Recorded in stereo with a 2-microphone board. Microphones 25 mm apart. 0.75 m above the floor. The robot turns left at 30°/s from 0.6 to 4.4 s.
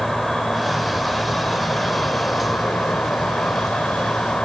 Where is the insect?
165° left, 3 m; by 4.5 s 50° left, 3 m.